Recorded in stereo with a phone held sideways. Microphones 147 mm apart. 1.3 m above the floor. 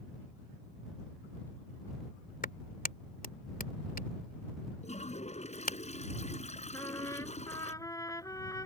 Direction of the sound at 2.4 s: 85° left.